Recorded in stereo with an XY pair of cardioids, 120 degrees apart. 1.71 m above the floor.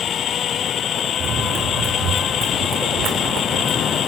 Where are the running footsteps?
70° right, 6 m; by 4.0 s 75° right, 7 m.